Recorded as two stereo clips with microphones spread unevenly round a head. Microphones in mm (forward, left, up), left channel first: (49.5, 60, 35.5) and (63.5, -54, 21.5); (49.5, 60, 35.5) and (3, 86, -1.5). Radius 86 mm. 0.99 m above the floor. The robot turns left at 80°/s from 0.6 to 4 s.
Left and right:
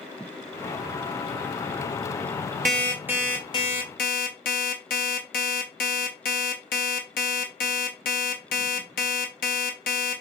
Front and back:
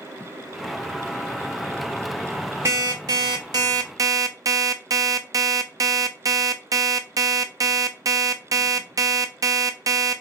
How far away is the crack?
No crack in this recording.